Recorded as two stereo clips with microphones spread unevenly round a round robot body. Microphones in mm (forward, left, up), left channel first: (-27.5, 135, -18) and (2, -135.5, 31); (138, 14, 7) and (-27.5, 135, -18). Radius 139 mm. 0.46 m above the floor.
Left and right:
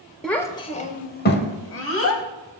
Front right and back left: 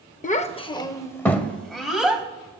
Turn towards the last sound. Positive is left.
turn(degrees=60)